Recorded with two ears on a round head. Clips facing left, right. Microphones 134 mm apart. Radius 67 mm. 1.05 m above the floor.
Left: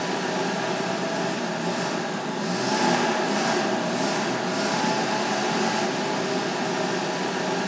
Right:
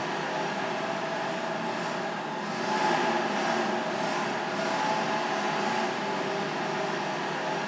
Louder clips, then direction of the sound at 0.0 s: Left 5 dB; 55° left (ahead or behind).